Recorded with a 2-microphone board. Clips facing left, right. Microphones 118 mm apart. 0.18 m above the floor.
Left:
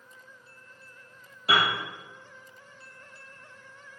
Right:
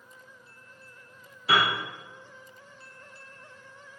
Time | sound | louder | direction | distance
1.5 | a piano | right 1 dB | 75° left (ahead or behind) | 1.5 m